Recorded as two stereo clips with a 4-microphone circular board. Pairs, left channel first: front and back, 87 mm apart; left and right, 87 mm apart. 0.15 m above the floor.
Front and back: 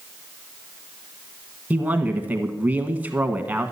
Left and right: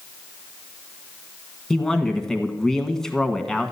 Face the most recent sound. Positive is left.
turn(degrees=160)